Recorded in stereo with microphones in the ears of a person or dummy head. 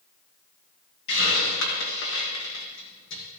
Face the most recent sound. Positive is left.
turn(degrees=60)  # may be behind; listen again after turning